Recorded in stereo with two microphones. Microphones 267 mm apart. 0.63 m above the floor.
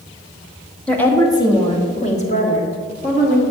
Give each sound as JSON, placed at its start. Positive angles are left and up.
{"t": 0.9, "sound": "a woman speaking", "side_deg": 5, "distance_m": 1.1}